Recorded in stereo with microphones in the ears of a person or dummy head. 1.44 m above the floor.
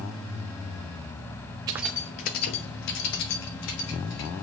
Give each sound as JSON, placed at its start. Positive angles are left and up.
{"t": 1.7, "sound": "keys jangling", "side_deg": -25, "distance_m": 0.7}